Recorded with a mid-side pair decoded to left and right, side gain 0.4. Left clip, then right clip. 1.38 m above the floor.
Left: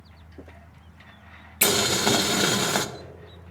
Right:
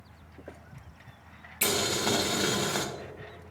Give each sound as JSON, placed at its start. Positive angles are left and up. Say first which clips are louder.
{"t": 1.6, "sound": "boiling", "louder": "left 6 dB", "azimuth_deg": 55, "distance_m": 0.5}